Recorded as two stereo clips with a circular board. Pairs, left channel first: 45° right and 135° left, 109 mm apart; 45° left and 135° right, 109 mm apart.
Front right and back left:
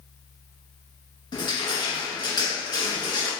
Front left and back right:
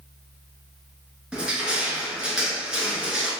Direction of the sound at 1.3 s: 55° right.